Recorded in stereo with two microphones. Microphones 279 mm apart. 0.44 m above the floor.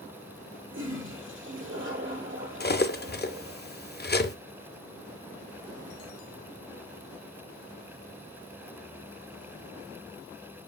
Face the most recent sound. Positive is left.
turn(degrees=35)  # may be behind; listen again after turning